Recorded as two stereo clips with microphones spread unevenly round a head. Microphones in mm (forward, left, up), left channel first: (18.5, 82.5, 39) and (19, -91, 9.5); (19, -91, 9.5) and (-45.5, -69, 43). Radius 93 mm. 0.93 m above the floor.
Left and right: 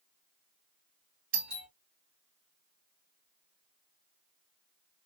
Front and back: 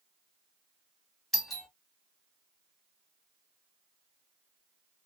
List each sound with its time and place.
1.3 s a doorbell: 85° right, 1.5 m